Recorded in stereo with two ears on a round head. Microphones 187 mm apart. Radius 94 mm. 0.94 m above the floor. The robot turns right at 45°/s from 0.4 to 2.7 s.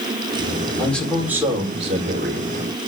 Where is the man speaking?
165° left, 3.5 m; by 2.5 s 115° right, 3.5 m.